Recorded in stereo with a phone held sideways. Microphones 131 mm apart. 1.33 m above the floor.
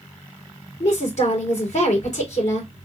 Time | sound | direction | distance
0.8 | a woman speaking | 60° left (ahead or behind) | 3 m